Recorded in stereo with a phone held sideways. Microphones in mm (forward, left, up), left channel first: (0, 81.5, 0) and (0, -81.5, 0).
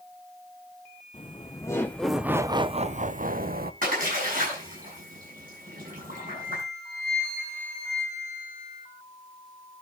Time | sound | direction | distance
1.1 | laughter | 30° left (ahead or behind) | 0.9 m
3.8 | a splash | 60° right (ahead or behind) | 6.5 m
6.1 | a flute | 75° right (ahead or behind) | 6.5 m